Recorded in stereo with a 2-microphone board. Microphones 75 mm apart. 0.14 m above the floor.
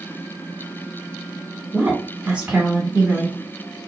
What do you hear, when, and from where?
1.7 s a woman speaking: 15° right (ahead or behind), 1.5 m